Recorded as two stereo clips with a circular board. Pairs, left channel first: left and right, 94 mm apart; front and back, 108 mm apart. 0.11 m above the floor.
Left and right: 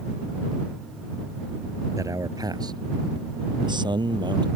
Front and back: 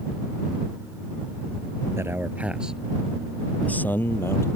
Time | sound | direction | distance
2.0 | a man speaking | 125° right | ?